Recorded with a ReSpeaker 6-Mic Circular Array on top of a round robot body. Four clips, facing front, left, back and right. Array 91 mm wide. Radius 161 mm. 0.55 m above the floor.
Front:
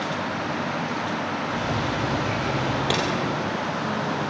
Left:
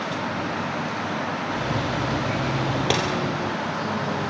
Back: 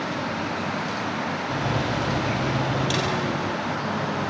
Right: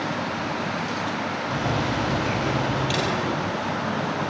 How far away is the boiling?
About 10 m.